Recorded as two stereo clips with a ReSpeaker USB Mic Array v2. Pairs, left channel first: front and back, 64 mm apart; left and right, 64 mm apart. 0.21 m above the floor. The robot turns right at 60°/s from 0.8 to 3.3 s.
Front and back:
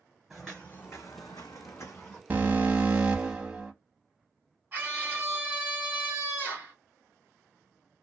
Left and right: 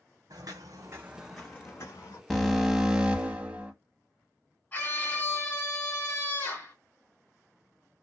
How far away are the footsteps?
About 0.8 m.